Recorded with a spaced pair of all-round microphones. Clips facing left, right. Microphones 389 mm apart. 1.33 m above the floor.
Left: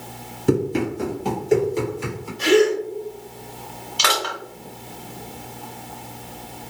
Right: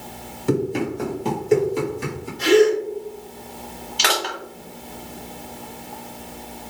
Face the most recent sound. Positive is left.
turn(degrees=15)  # may be behind; listen again after turning